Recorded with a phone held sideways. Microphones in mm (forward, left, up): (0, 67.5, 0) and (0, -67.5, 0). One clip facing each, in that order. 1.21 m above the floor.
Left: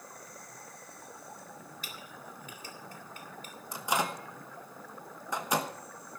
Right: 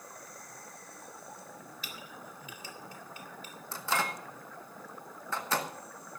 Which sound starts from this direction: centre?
A microwave, at 3.7 s.